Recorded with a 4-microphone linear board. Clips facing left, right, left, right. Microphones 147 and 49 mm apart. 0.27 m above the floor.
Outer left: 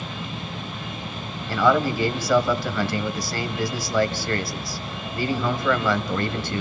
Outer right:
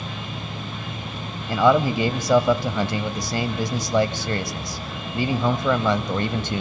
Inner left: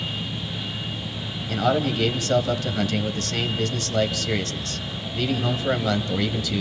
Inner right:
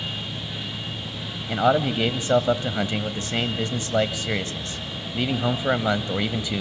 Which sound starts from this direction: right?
A man speaking, at 1.5 s.